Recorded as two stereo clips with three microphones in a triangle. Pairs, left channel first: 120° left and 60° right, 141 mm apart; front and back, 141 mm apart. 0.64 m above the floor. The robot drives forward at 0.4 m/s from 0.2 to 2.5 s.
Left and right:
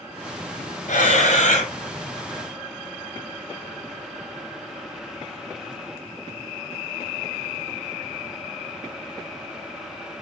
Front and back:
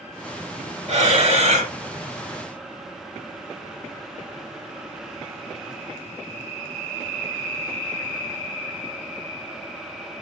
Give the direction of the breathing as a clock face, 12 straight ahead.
7 o'clock.